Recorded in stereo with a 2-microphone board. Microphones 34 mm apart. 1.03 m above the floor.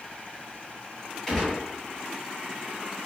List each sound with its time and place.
1.3 s a gunshot: 15° left (ahead or behind), 1.9 m